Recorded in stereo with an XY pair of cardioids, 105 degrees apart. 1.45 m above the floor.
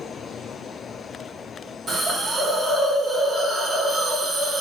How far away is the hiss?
About 1.8 m.